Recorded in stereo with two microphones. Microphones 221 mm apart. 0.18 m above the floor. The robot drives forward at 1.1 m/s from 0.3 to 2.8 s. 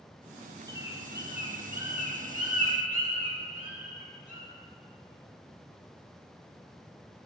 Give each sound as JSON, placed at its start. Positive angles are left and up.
{"t": 0.7, "sound": "a bird", "side_deg": -55, "distance_m": 4.0}